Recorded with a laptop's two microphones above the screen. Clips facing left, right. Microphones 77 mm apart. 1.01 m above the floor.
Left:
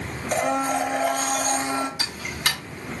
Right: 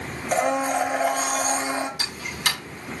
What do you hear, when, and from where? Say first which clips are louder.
0.3 s a blender: right 1 dB; 5° right (ahead or behind), 1.3 m
2.0 s ticking: even; 45° left (ahead or behind), 5 m